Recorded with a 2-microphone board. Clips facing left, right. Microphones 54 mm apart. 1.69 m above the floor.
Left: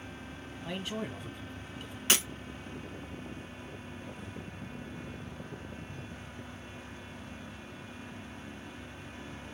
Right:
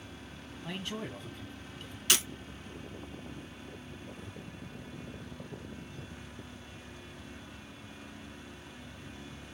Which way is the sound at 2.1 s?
30° left (ahead or behind).